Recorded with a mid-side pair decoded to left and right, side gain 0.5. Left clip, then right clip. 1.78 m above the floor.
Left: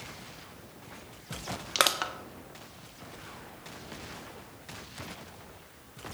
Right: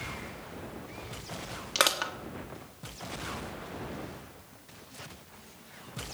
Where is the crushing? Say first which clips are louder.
Even; 15° left, 1.6 m.